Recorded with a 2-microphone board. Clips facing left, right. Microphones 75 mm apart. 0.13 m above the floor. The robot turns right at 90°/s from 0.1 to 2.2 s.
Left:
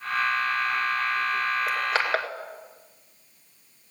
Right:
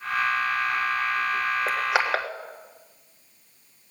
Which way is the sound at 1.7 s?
30° right (ahead or behind).